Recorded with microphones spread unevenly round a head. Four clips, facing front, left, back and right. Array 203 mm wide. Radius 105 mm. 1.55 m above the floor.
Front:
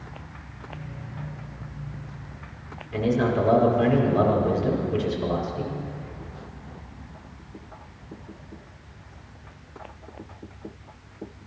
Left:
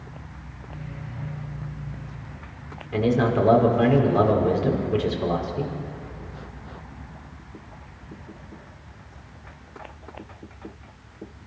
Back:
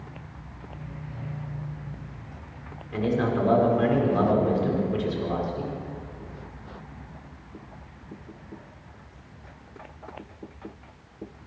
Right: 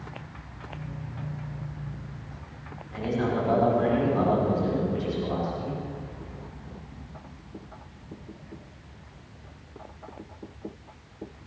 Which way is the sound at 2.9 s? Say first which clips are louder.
Left 6 dB, front 2 dB; 105° left.